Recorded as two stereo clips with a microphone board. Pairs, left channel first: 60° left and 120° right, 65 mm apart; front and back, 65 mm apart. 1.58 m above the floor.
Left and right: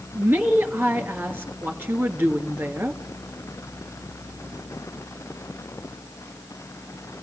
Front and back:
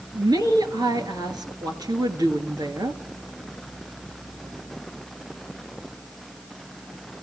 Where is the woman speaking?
175° left, 2.5 m.